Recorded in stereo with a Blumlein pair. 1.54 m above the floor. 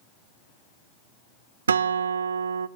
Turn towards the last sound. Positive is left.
turn(degrees=-70)